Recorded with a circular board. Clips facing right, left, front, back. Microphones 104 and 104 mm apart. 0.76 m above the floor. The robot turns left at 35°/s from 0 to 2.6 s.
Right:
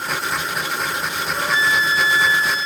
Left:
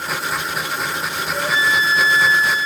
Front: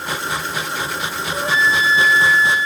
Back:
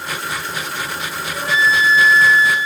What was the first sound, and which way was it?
A flute, 55° left.